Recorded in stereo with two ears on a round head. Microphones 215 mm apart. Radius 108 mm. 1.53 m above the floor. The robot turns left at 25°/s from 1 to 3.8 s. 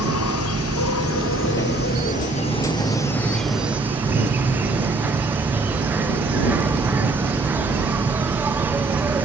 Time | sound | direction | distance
0.0 | an insect | 60° left | ?